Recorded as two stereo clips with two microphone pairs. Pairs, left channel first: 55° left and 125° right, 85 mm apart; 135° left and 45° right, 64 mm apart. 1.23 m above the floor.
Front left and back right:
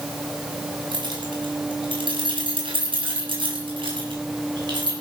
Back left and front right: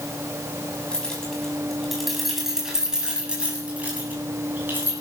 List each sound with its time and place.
0.9 s keys jangling: 145° right, 7 m; by 4.9 s 100° right, 7.5 m